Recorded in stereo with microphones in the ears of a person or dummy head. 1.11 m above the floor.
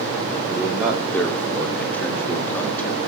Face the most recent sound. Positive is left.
turn(degrees=5)  # may be behind; listen again after turning